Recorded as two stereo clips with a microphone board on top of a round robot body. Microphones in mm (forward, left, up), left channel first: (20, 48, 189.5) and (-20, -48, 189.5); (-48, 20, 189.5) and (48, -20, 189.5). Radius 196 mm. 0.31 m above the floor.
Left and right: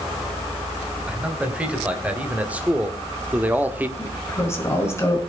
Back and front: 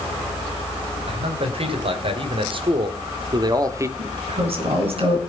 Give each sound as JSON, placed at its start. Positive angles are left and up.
{"t": 1.1, "sound": "a man speaking", "azimuth_deg": -35, "distance_m": 4.0}
{"t": 4.0, "sound": "a woman speaking", "azimuth_deg": 5, "distance_m": 4.5}